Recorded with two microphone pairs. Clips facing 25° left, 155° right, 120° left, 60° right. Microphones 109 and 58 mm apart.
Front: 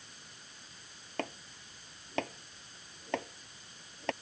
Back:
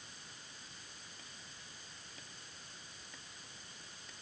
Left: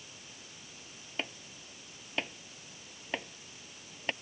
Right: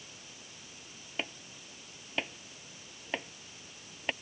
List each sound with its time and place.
1.2 s chopping: 30° left